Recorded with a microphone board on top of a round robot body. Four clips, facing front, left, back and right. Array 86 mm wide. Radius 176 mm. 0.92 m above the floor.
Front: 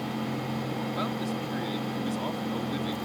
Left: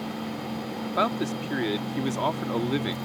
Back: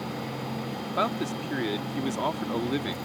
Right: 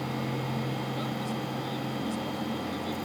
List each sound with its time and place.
1.0 s a man speaking: 115° left